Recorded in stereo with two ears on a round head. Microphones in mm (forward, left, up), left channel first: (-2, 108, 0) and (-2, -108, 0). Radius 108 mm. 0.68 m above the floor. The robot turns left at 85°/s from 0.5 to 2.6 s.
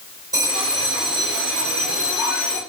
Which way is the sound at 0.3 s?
15° right.